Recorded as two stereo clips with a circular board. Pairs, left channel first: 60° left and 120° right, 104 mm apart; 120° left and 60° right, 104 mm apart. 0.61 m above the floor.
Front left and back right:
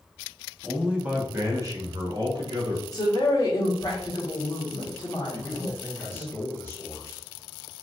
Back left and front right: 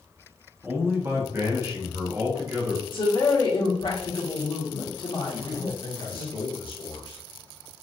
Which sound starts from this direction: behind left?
A man speaking, at 5.3 s.